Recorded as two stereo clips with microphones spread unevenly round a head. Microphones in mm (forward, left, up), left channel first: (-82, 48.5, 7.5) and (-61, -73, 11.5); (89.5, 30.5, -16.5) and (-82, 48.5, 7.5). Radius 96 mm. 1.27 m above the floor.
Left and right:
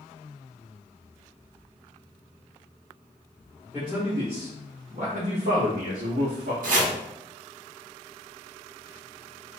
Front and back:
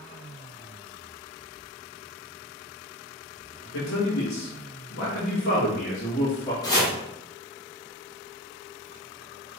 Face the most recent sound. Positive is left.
turn(degrees=-80)